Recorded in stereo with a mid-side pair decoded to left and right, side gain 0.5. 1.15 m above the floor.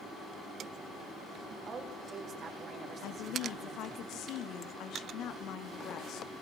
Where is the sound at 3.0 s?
70° left, 2 m.